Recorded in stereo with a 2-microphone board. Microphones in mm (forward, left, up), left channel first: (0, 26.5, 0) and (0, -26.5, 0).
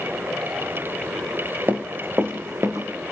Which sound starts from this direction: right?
Running footsteps, at 1.7 s.